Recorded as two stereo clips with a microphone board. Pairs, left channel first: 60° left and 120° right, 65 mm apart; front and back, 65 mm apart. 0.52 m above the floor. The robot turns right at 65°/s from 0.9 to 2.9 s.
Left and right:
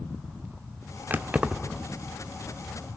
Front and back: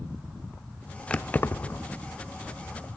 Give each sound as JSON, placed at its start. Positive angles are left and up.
{"t": 1.1, "sound": "keys jangling", "azimuth_deg": -70, "distance_m": 0.6}